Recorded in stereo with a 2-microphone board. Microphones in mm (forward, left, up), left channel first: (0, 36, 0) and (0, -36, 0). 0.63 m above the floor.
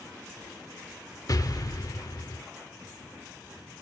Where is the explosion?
55° left (ahead or behind), 0.7 m.